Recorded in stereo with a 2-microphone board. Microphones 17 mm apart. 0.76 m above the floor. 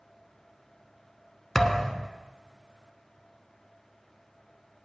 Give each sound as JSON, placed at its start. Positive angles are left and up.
{"t": 1.6, "sound": "a thud", "side_deg": 30, "distance_m": 1.0}